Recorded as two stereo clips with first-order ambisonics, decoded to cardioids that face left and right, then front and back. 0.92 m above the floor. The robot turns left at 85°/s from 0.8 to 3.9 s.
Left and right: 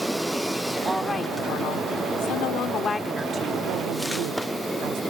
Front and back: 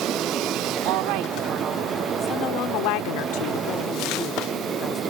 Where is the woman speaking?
170° right; by 5.0 s 70° right.